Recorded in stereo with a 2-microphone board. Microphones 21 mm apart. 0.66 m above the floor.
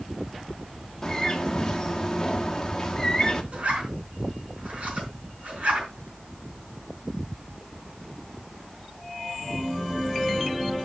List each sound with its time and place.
1.0 s a bird: 25° left (ahead or behind), 1.4 m
3.5 s a zipper: 75° right (ahead or behind), 4.5 m